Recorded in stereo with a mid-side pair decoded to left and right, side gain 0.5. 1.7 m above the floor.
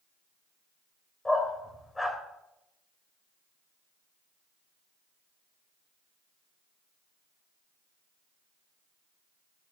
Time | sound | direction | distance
1.2 | a dog barking | 20° left | 3.5 m